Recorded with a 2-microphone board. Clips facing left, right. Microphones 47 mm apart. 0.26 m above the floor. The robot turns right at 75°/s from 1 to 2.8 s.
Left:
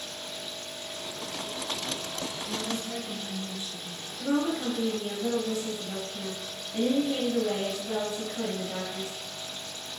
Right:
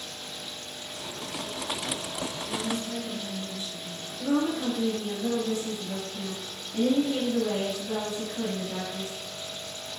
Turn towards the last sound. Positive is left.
turn(degrees=25)  # may be behind; listen again after turning